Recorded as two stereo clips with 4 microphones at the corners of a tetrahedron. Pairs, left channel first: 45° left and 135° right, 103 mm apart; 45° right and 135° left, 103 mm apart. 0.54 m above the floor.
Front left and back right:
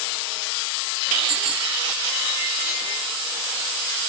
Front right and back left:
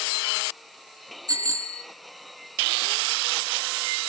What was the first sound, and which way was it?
A bicycle bell, 170° right.